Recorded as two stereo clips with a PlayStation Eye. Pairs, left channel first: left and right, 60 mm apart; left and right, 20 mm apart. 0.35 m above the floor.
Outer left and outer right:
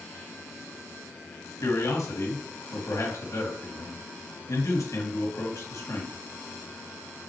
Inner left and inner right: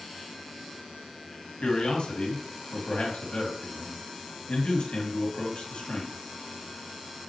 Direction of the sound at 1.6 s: 60° left (ahead or behind).